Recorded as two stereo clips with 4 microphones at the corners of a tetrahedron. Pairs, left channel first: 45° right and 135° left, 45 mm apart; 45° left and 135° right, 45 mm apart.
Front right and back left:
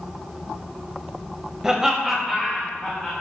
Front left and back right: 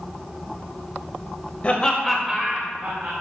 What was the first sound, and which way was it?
Laughter, 65° left.